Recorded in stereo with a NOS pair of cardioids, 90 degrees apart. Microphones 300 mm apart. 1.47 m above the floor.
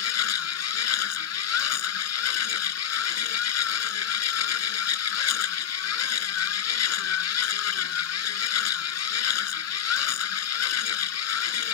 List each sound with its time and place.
0.0 s a machine running: 60° left